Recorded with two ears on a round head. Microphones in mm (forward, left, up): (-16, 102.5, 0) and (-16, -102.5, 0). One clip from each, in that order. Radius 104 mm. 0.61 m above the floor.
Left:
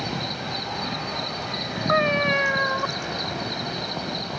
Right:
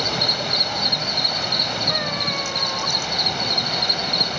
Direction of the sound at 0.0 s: 40° right (ahead or behind).